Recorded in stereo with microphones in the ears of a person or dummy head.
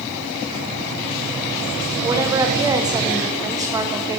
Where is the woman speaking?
10° right (ahead or behind), 1.4 m.